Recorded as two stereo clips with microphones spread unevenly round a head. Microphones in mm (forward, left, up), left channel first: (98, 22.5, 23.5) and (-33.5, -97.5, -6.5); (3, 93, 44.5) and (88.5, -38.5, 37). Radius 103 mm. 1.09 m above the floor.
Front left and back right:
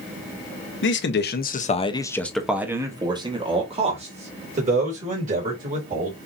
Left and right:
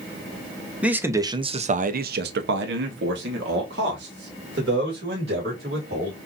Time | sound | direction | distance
0.8 | a man speaking | 25° left | 1.0 m